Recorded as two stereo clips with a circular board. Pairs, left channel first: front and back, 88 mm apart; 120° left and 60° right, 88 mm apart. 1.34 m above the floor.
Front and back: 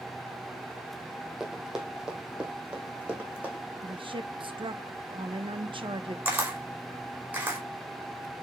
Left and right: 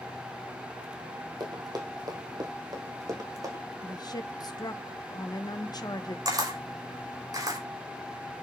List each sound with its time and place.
1.4 s running footsteps: 95° right, 3 m; by 3.6 s 105° right, 4.5 m
3.8 s a woman speaking: 160° left, 1.3 m
6.2 s a camera shutter: 105° right, 4.5 m